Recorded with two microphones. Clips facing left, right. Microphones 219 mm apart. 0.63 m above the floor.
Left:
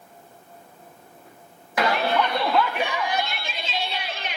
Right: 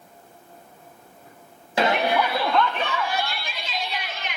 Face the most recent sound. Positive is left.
turn(degrees=30)  # may be behind; listen again after turning